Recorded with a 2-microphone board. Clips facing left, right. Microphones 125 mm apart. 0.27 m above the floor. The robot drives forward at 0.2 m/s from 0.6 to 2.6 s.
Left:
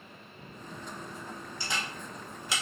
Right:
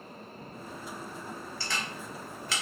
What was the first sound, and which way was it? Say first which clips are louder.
A camera shutter: left 1 dB; 20° left (ahead or behind).